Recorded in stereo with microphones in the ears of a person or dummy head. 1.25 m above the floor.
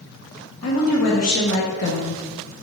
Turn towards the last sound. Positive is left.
turn(degrees=75)  # may be behind; listen again after turning